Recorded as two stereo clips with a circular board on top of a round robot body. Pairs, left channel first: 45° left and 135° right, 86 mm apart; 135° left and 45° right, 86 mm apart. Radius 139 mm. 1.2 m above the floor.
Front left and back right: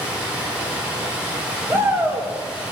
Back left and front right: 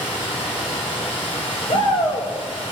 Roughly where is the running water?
Behind left.